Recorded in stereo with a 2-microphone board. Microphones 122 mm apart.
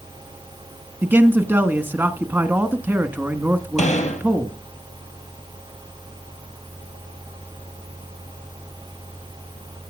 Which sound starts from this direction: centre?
A man speaking, at 1.0 s.